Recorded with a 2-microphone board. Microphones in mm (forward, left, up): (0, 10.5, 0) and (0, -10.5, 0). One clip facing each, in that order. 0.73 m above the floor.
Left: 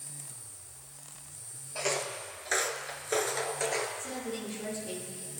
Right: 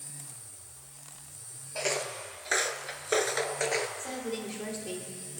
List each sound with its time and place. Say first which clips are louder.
1.8 s footsteps: right 1 dB; 10° right (ahead or behind), 1.0 m; by 3.9 s 20° right (ahead or behind), 0.9 m
4.0 s a woman speaking: right 2 dB; 45° right (ahead or behind), 2.5 m